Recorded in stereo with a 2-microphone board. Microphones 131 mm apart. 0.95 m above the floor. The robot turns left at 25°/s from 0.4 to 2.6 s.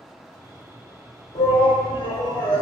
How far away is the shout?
About 2.5 m.